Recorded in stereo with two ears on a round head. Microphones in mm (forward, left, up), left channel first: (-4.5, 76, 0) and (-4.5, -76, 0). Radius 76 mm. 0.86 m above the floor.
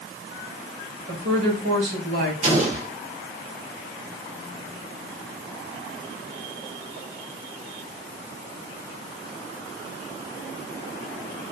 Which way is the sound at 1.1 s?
65° right (ahead or behind).